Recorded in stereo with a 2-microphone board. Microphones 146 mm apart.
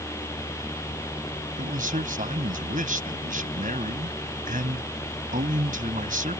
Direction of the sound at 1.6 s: 75° right (ahead or behind).